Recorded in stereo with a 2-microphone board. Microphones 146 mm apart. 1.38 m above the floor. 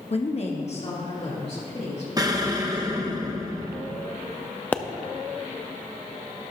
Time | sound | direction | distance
0.1 | a woman speaking | 45° left (ahead or behind) | 0.7 m
2.2 | an explosion | 25° right (ahead or behind) | 0.9 m
4.7 | a pop | 10° left (ahead or behind) | 0.5 m